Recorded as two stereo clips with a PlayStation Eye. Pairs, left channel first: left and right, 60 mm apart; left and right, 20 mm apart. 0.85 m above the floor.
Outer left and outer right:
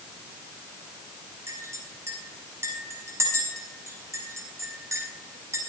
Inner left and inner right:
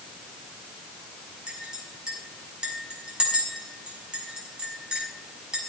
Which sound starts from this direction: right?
A clink, at 1.5 s.